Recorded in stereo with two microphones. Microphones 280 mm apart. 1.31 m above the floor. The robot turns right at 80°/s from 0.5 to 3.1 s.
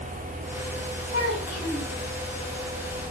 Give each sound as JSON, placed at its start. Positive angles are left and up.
{"t": 1.1, "sound": "a child speaking", "azimuth_deg": -140, "distance_m": 4.5}